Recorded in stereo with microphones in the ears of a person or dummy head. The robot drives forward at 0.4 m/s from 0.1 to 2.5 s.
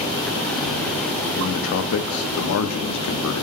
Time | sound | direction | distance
1.4 | a man speaking | 60° left (ahead or behind) | 0.7 m